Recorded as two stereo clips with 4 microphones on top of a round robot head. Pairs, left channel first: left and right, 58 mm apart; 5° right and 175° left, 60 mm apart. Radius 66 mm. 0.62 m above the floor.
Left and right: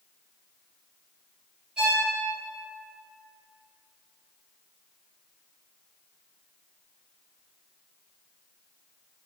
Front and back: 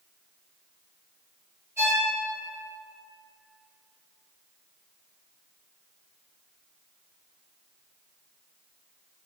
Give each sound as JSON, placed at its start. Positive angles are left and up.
{"t": 1.8, "sound": "a violin", "azimuth_deg": -160, "distance_m": 1.6}